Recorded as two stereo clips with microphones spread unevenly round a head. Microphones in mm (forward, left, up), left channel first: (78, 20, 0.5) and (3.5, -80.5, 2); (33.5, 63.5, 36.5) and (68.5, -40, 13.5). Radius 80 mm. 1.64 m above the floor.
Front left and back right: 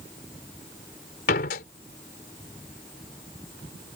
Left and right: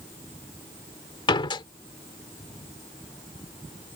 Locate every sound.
1.3 s a door slam: 70° left